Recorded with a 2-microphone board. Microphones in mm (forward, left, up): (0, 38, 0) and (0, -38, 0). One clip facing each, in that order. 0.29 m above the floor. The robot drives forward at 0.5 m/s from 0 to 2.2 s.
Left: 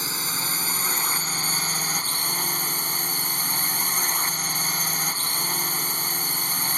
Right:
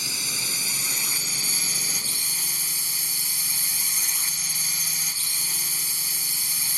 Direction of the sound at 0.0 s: 40° left (ahead or behind).